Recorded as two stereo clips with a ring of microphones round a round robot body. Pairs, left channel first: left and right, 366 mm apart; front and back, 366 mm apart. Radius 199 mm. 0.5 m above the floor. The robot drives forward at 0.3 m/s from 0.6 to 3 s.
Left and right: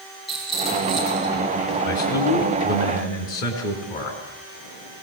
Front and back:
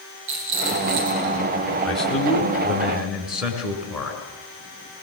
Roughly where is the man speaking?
Left.